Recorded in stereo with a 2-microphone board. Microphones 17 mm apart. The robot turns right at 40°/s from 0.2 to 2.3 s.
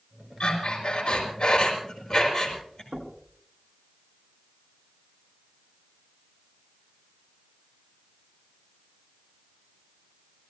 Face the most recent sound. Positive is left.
turn(degrees=-40)  # may be behind; listen again after turning